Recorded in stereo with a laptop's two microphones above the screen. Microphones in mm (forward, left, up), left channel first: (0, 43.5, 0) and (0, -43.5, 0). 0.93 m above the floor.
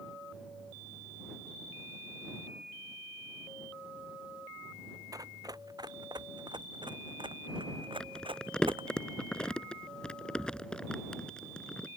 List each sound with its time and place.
5.1 s running footsteps: 45° right (ahead or behind); by 9.0 s 70° right (ahead or behind)
8.0 s crumpling: 10° left (ahead or behind)